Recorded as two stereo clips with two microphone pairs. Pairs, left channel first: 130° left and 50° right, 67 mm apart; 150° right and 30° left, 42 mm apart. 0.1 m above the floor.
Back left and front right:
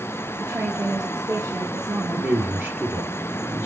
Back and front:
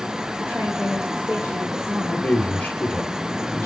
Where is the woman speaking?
30° right, 4 m.